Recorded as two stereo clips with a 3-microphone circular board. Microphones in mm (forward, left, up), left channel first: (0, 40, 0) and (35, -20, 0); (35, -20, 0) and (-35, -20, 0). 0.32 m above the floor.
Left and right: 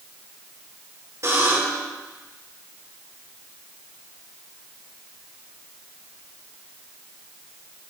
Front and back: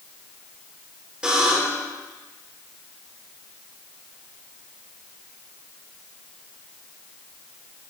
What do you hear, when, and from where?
1.2 s a buzzer: 105° right, 4.5 m